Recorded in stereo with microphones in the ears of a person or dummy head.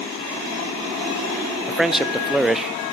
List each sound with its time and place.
1.7 s a man speaking: centre (ahead or behind), 0.6 m